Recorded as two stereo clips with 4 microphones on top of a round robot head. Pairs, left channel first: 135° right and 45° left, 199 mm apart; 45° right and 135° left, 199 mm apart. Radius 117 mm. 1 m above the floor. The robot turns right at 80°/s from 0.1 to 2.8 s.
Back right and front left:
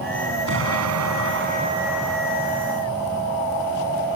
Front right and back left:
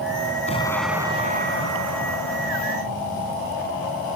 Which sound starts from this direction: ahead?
An explosion, at 0.5 s.